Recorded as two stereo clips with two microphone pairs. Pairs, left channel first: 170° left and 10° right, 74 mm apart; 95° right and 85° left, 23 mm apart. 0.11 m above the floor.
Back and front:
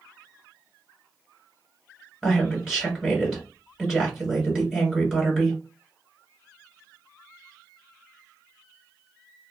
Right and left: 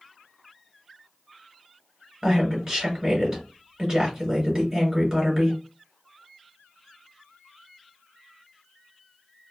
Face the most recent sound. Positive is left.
turn(degrees=65)